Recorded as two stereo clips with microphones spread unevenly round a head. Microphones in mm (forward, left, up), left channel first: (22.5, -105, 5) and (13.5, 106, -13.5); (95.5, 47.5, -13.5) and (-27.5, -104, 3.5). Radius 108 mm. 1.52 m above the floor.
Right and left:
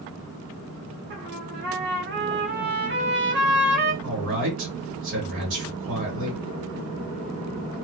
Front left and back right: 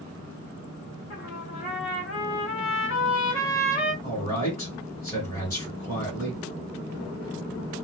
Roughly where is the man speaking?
Behind left.